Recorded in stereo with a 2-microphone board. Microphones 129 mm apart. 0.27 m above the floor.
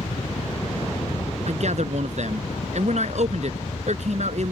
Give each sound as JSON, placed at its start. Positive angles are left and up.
{"t": 0.0, "sound": "a helicopter", "side_deg": 55}
{"t": 1.5, "sound": "a man speaking", "side_deg": -65}